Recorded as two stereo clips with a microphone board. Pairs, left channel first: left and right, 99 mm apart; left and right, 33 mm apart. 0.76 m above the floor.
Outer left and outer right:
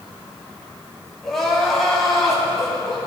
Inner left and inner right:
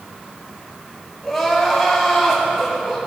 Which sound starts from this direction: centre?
Crying, at 1.2 s.